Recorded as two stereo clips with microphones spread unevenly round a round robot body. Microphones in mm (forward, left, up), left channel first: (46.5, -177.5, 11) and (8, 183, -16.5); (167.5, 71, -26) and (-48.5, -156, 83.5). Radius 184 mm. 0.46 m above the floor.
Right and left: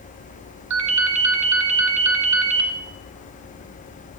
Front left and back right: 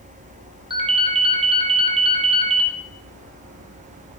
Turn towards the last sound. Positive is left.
turn(degrees=150)